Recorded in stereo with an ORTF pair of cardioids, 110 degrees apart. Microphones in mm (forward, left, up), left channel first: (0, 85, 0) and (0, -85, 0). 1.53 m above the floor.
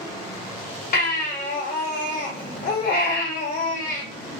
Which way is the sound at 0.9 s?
60° left.